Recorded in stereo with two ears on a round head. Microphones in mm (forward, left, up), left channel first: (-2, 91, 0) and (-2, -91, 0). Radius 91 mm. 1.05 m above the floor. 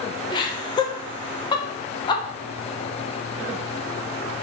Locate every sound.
0.3 s laughter: 20° left (ahead or behind), 0.8 m